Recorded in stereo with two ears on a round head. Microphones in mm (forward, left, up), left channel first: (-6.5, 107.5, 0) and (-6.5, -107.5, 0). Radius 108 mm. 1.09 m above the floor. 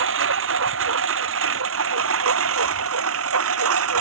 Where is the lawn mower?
60° right (ahead or behind); by 4.0 s 65° right (ahead or behind).